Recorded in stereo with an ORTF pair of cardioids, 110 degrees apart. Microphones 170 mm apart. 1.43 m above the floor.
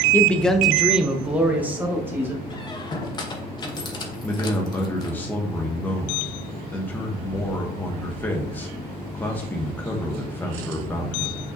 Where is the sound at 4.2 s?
10° left, 1.3 m.